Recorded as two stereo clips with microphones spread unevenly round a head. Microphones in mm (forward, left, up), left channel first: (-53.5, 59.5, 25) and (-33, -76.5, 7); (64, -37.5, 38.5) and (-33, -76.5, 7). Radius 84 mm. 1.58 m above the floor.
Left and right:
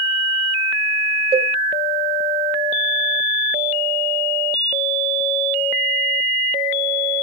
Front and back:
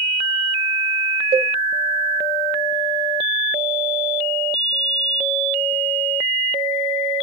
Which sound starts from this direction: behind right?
A cowbell, at 1.3 s.